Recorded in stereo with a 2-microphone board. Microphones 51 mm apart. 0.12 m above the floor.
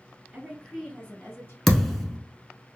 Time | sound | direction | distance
0.3 | a woman speaking | 20° right (ahead or behind) | 1.3 m
1.7 | a thud | 5° left (ahead or behind) | 0.6 m